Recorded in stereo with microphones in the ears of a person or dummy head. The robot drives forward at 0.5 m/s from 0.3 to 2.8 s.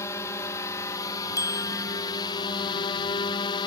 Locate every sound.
0.0 s a drone: 15° left (ahead or behind); by 3.7 s 25° left (ahead or behind)
1.4 s a bicycle bell: 15° left (ahead or behind); by 1.9 s 20° left (ahead or behind)